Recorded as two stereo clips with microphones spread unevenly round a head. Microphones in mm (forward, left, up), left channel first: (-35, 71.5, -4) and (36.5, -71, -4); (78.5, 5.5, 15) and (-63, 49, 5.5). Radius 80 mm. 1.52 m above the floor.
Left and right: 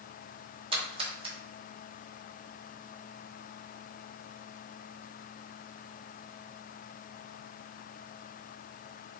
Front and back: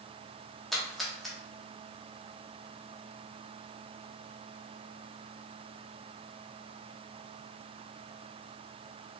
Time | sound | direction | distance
0.7 | a splash | 100° right | 1.2 m